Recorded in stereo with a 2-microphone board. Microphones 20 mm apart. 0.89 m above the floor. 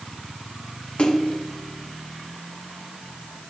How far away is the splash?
About 1.0 m.